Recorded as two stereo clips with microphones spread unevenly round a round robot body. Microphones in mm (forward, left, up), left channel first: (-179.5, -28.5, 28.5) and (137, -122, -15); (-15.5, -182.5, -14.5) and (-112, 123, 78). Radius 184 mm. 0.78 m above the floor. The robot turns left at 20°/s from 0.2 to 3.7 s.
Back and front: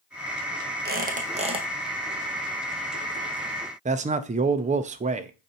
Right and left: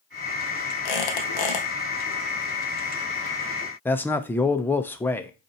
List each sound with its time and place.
0.8 s a squeak: 80° right, 1.5 m; by 1.7 s 95° right, 1.5 m
3.9 s a man speaking: 30° right, 0.5 m